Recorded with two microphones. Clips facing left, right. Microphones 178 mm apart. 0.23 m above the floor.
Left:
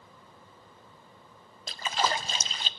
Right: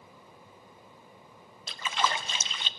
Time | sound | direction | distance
1.7 | a splash | 40° left (ahead or behind) | 0.6 m